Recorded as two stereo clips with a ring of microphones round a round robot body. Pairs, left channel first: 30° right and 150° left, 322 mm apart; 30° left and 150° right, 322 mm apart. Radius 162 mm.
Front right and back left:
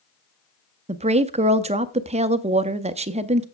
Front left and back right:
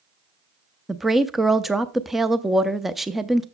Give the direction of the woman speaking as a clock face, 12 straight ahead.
8 o'clock.